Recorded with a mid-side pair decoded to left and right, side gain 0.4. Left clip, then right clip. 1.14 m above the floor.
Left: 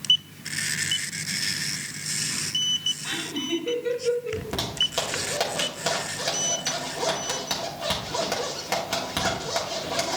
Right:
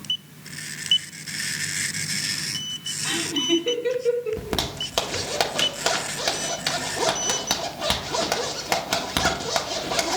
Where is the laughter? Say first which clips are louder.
Right 6 dB; 50° right, 3.5 m.